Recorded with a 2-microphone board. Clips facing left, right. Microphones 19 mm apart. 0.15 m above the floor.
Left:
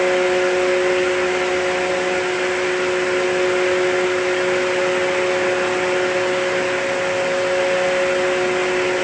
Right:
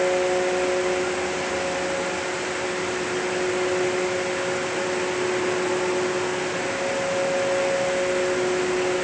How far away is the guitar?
I don't hear a guitar.